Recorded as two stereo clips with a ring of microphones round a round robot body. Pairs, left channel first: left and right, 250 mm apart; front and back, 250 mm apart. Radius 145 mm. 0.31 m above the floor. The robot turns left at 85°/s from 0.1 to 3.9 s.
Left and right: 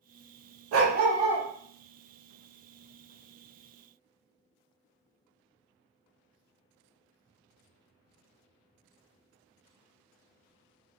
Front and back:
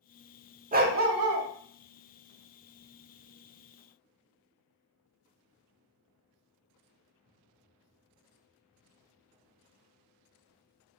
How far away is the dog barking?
About 0.8 m.